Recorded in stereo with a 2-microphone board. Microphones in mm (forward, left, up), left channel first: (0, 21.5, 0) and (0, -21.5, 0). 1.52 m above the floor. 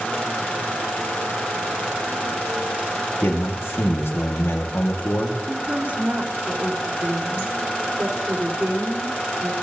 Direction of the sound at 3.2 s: 75° left (ahead or behind).